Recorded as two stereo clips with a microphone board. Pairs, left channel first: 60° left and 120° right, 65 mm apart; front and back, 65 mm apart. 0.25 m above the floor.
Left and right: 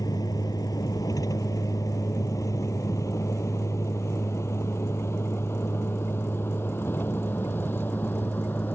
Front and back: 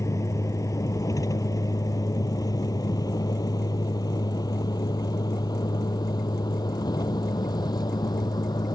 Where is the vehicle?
40° left; by 8.8 s straight ahead.